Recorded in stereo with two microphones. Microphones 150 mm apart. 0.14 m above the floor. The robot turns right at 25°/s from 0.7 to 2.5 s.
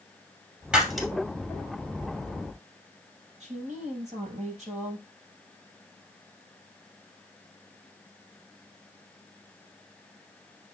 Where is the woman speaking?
50° right (ahead or behind), 3.5 m.